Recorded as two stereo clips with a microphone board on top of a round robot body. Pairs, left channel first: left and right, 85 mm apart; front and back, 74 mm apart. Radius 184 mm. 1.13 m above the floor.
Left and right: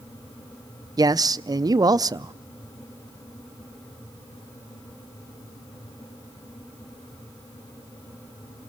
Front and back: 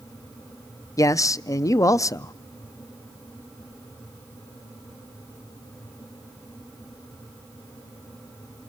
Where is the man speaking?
45° right, 0.6 m.